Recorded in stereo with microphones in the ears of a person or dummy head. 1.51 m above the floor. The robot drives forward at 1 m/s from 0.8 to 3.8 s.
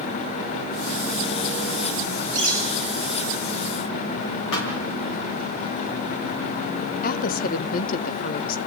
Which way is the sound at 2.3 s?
15° left (ahead or behind).